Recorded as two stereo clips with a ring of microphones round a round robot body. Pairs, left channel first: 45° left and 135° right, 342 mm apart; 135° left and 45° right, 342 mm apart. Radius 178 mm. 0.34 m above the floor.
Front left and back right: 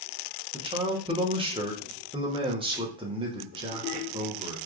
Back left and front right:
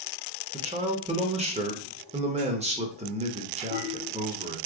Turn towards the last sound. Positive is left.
turn(degrees=-85)